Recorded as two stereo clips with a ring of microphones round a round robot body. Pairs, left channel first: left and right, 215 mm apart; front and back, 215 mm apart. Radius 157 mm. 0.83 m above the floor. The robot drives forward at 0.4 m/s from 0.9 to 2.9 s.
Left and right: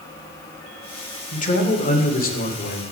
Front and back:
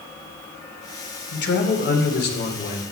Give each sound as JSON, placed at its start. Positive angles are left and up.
{"t": 1.3, "sound": "a man speaking", "azimuth_deg": 35, "distance_m": 2.5}